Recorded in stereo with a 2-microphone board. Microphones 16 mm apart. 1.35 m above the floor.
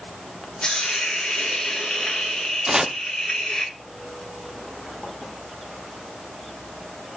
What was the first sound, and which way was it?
A hiss, 75° left (ahead or behind).